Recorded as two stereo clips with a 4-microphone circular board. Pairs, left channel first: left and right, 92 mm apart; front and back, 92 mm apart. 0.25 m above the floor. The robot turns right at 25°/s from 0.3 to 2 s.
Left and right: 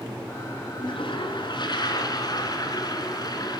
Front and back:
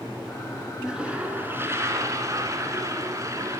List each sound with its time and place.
0.8 s a toilet flushing: 100° left, 1.9 m; by 3.6 s 130° left, 1.9 m